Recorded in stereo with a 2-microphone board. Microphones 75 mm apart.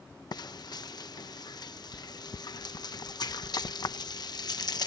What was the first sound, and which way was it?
Frying, 65° left (ahead or behind).